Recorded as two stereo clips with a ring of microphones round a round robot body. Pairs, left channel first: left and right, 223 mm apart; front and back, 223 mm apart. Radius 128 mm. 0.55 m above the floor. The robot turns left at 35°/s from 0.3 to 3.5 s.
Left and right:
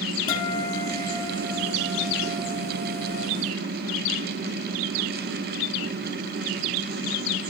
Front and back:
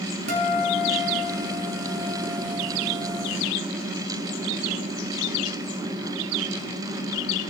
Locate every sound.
0.3 s a guitar: 160° left, 2.5 m; by 3.2 s 60° left, 2.5 m